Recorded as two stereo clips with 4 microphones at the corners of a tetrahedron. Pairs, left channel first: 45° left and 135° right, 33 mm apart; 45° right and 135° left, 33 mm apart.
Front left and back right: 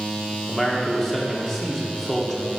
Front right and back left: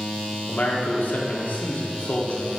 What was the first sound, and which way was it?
A man speaking, 35° right.